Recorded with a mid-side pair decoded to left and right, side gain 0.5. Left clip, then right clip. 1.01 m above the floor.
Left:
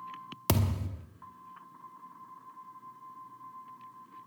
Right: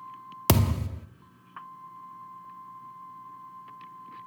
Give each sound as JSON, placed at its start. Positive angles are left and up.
{"t": 0.5, "sound": "a thud", "azimuth_deg": -40, "distance_m": 0.9}